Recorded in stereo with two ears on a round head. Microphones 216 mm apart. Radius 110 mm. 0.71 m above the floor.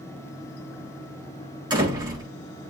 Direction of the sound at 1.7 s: 20° right (ahead or behind).